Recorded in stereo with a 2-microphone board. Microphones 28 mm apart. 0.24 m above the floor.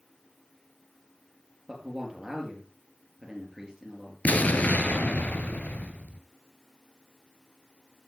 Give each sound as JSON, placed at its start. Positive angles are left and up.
{"t": 1.7, "sound": "a man speaking", "side_deg": -15, "distance_m": 4.0}
{"t": 4.2, "sound": "an explosion", "side_deg": 85, "distance_m": 1.0}